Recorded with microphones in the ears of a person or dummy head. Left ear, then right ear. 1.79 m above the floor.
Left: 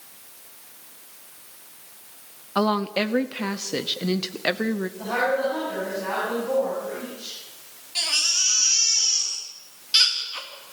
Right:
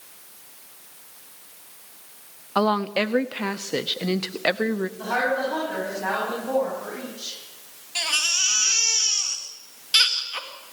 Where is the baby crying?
25° right (ahead or behind), 2 m.